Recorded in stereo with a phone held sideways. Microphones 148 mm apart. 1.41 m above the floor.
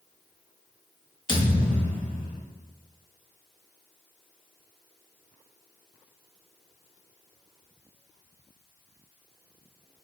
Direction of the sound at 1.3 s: 35° left (ahead or behind).